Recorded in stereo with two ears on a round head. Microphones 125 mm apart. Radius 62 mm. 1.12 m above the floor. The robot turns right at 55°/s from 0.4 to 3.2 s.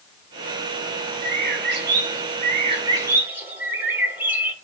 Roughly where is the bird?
Behind right.